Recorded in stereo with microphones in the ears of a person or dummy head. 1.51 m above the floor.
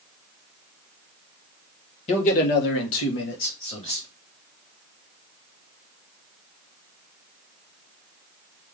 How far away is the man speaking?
About 1.5 m.